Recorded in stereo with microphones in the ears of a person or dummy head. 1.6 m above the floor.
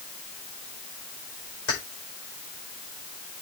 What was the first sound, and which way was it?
Keys jangling, 55° left (ahead or behind).